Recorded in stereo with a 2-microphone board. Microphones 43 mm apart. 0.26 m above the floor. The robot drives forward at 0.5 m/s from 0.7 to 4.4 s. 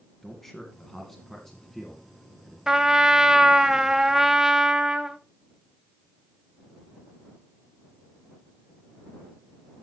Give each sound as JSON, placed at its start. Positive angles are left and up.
{"t": 0.2, "sound": "a man speaking", "side_deg": 10, "distance_m": 1.9}
{"t": 2.7, "sound": "a trumpet", "side_deg": -15, "distance_m": 0.9}